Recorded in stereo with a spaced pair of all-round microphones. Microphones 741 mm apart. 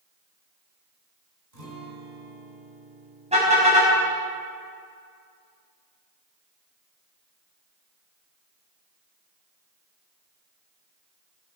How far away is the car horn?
About 5 m.